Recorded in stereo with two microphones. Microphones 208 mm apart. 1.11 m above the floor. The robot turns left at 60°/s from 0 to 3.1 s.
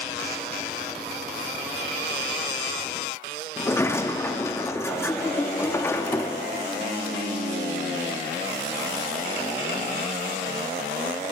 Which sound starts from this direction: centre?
A sliding door, at 3.6 s.